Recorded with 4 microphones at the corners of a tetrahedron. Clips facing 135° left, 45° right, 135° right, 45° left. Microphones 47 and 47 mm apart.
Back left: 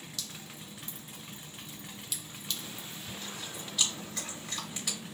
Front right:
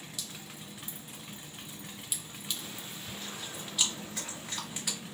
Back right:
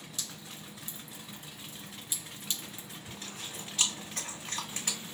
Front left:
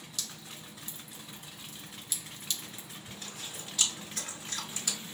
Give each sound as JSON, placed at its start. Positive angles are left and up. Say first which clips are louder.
{"t": 0.2, "sound": "dripping", "louder": "even, front left 1 dB", "azimuth_deg": -105, "distance_m": 0.6}
{"t": 3.1, "sound": "chewing", "louder": "even, back right 1 dB", "azimuth_deg": -120, "distance_m": 1.7}